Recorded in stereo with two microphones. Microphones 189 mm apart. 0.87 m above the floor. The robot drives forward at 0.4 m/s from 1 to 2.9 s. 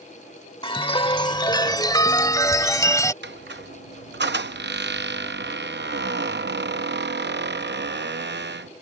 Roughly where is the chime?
Left.